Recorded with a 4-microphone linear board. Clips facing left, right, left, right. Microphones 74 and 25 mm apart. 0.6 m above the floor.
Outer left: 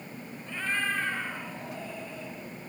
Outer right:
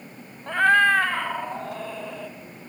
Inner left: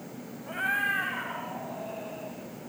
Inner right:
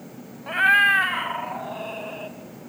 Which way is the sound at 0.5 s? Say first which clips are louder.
Outer right 14 dB, inner right 11 dB; 65° right (ahead or behind).